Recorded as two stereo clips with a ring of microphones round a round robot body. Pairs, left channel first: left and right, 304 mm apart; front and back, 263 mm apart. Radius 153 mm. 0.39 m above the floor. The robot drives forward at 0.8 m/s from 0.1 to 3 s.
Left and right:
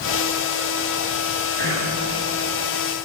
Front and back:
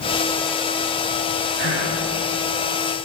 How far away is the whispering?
About 3.5 m.